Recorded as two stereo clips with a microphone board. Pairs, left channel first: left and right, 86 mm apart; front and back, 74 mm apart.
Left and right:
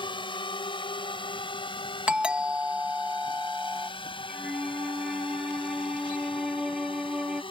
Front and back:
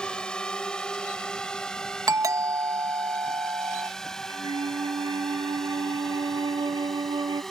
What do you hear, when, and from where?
0.0 s a drone: 80° left; by 7.5 s 85° left
2.1 s a doorbell: 165° right
4.3 s a flute: 175° right